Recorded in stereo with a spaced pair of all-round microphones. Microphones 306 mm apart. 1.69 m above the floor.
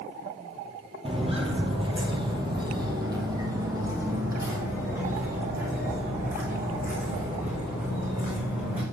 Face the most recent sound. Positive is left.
turn(degrees=-5)  # may be behind; listen again after turning